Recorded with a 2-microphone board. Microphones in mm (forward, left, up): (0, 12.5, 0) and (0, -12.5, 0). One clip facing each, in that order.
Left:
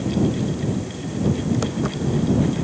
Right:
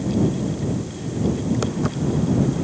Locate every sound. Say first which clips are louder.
1.6 s footsteps: even; centre (ahead or behind)